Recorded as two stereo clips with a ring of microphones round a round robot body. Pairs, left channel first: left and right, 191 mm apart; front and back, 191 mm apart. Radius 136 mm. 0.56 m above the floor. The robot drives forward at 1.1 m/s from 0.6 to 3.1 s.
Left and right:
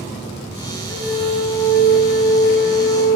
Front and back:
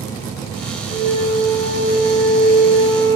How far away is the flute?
About 4.5 m.